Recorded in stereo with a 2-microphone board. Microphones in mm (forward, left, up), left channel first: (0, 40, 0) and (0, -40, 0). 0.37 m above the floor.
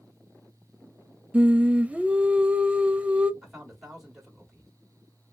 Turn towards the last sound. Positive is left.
turn(degrees=-5)  # may be behind; listen again after turning